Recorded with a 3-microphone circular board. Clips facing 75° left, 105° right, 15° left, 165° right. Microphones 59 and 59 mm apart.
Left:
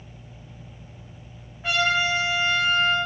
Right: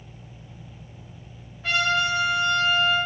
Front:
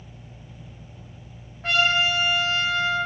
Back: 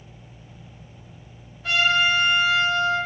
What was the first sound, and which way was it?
A trumpet, 10° left.